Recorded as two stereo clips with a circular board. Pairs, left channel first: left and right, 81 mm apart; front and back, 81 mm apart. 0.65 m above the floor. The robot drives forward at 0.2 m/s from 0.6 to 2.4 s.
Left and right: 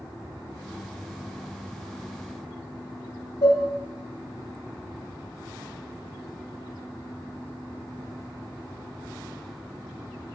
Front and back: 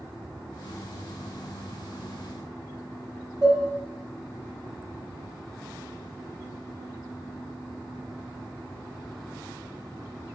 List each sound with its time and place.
3.4 s dishes clattering: 110° left, 1.3 m